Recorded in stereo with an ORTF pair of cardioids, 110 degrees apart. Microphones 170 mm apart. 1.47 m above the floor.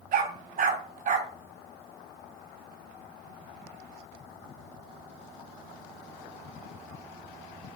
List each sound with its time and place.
0.1 s a dog barking: 55° right, 4.5 m